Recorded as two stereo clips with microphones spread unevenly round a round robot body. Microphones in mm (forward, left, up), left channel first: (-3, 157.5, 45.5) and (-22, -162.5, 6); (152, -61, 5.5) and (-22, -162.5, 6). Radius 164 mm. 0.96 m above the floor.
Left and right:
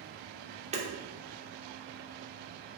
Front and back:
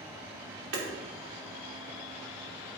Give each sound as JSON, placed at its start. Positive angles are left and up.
{"t": 0.7, "sound": "hammering", "azimuth_deg": -165, "distance_m": 3.0}